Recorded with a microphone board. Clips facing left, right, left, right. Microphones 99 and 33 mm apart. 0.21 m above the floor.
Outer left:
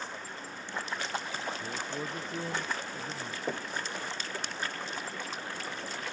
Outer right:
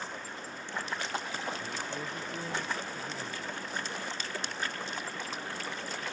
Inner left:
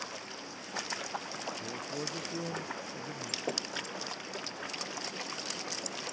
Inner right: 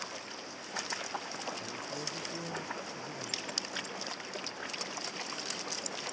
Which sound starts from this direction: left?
Knocking, at 3.5 s.